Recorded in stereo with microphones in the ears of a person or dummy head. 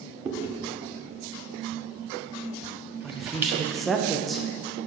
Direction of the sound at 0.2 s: 15° right (ahead or behind).